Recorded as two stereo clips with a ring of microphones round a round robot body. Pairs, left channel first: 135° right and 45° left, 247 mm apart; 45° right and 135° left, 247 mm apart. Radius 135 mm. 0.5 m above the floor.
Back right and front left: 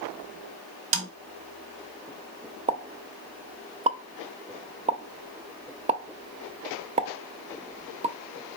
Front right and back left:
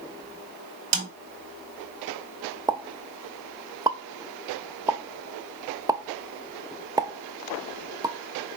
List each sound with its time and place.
0.9 s a snare drum: 80° left, 1.0 m
2.7 s a pop: 75° left, 0.5 m